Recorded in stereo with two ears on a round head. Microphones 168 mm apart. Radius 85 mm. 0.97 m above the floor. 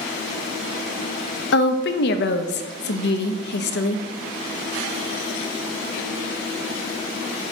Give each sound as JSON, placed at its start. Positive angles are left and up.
{"t": 1.5, "sound": "a woman speaking", "side_deg": 60, "distance_m": 0.6}